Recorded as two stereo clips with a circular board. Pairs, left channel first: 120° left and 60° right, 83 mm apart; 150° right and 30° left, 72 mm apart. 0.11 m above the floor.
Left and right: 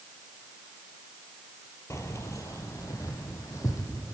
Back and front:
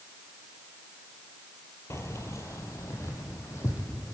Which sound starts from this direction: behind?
Keys jangling, at 1.9 s.